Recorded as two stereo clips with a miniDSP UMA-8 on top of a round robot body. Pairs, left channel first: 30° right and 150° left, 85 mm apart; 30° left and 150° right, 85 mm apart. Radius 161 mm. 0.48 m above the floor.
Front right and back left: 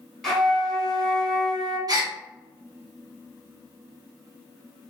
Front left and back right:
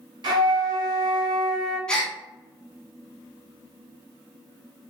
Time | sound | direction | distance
0.2 | a flute | 115° right | 1.3 m
1.9 | a gasp | 110° left | 0.9 m